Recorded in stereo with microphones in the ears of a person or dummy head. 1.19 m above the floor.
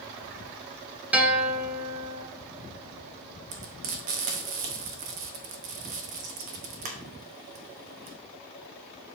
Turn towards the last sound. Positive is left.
turn(degrees=-45)  # may be behind; listen again after turning